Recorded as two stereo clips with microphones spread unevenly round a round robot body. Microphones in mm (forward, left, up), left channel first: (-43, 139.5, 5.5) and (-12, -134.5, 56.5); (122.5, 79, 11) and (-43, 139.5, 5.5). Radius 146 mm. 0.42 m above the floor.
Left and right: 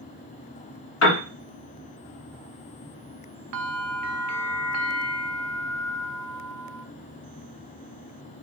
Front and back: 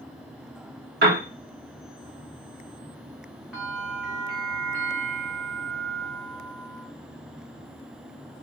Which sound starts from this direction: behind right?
A bell, at 3.5 s.